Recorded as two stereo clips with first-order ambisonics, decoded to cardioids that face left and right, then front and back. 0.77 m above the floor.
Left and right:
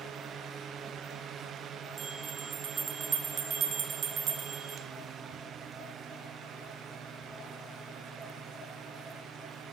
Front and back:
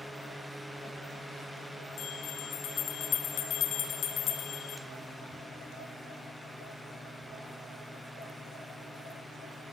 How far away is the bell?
About 0.6 m.